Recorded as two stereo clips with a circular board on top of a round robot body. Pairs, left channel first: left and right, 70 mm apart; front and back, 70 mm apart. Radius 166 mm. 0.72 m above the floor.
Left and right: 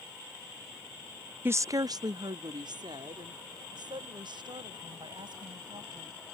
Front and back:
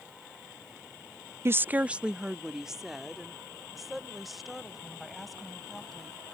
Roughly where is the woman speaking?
Behind right.